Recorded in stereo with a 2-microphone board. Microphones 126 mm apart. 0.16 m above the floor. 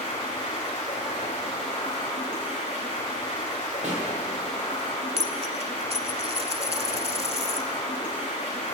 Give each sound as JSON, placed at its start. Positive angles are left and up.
{"t": 0.0, "sound": "running water", "side_deg": 80, "distance_m": 6.0}
{"t": 3.8, "sound": "a pop", "side_deg": -70, "distance_m": 4.0}
{"t": 5.2, "sound": "a dropped coin", "side_deg": -50, "distance_m": 0.8}